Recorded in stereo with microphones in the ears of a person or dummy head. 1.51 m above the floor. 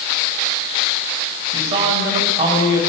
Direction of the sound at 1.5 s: 40° right (ahead or behind).